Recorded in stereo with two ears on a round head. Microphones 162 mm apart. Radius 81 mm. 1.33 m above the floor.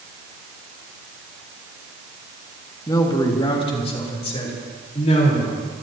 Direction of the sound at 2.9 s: 20° left (ahead or behind).